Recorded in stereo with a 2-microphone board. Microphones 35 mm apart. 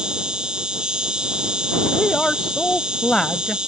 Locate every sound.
0.0 s an insect: 25° right (ahead or behind)
1.9 s a woman speaking: 20° left (ahead or behind)